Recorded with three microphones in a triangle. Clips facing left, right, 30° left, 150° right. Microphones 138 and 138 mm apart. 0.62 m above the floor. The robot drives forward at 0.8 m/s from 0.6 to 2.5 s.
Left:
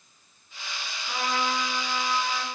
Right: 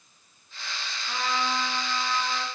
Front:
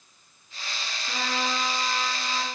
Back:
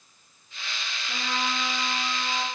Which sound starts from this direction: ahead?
A trumpet, at 1.1 s.